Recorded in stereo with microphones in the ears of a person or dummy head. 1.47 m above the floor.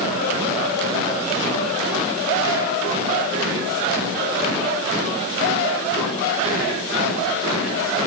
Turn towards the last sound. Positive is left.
No sound to turn to.